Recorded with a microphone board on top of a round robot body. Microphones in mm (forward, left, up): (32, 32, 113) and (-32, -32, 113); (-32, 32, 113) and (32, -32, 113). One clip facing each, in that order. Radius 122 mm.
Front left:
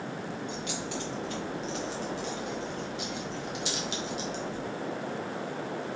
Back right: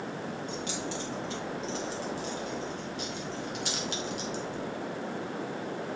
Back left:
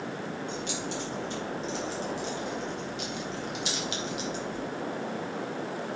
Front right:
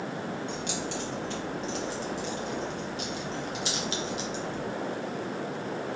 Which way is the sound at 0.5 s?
75° right.